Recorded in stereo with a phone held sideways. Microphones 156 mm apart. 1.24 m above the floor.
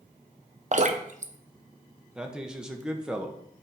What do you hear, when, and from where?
0.7 s dripping: 50° right (ahead or behind), 0.7 m
2.1 s a man speaking: 5° right (ahead or behind), 0.9 m